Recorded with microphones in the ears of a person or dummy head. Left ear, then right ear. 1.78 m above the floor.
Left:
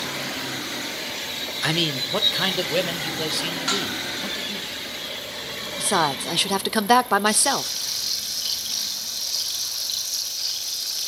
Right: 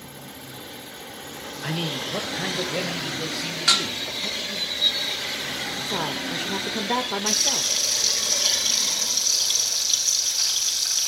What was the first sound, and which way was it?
A man speaking, 45° left (ahead or behind).